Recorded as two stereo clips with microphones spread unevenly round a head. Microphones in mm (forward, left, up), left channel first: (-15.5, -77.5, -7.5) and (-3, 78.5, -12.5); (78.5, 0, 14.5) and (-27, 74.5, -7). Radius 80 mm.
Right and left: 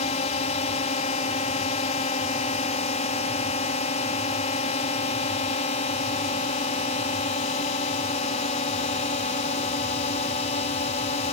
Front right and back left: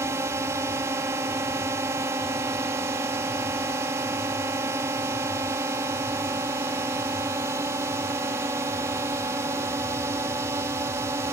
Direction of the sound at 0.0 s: 140° right.